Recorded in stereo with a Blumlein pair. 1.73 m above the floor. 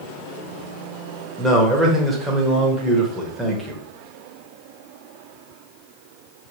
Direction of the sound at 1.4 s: Straight ahead.